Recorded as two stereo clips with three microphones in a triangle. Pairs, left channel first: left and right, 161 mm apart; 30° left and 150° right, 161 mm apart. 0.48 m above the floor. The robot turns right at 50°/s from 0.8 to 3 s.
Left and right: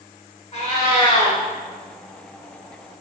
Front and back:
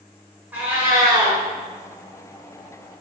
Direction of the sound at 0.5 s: 135° left.